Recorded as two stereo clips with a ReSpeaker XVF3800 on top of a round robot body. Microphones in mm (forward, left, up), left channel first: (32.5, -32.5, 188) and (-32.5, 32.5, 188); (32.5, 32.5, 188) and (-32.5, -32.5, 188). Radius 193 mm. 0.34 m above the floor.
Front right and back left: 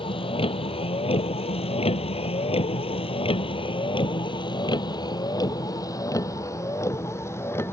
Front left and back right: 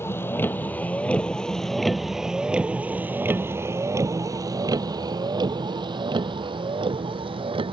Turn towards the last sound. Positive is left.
turn(degrees=-110)